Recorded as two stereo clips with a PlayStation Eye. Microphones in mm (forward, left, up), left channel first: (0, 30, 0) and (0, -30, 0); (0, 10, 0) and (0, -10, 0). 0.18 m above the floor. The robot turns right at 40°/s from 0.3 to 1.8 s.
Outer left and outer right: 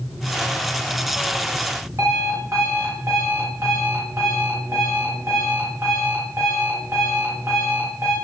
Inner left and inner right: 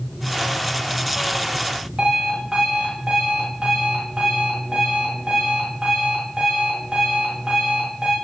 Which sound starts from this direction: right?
An alarm clock, at 2.0 s.